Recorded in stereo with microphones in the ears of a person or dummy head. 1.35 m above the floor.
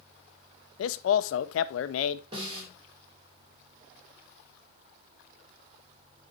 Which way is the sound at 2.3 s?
35° right (ahead or behind).